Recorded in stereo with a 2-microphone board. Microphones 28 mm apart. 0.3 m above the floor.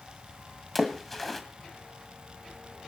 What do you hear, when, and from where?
0.8 s a splash: 10° left (ahead or behind), 1.7 m